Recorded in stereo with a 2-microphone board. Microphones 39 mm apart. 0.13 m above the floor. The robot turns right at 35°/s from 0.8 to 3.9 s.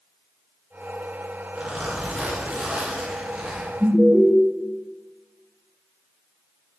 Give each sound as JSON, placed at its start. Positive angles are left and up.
{"t": 1.6, "sound": "a zipper", "azimuth_deg": -110, "distance_m": 1.0}
{"t": 3.8, "sound": "an alarm", "side_deg": -45, "distance_m": 1.3}